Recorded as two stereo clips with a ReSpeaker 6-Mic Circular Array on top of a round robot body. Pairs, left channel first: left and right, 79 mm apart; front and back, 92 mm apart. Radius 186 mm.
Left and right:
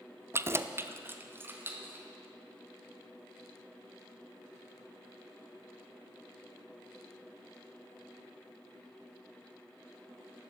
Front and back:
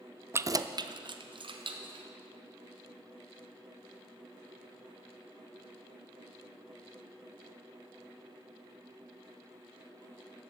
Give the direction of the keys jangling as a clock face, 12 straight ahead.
4 o'clock.